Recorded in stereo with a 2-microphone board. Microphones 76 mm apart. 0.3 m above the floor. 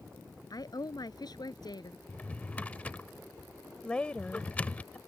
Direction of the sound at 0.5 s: 60° left (ahead or behind).